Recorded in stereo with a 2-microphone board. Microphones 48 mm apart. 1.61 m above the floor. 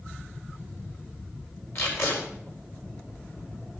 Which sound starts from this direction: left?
Tape being pulled, at 1.8 s.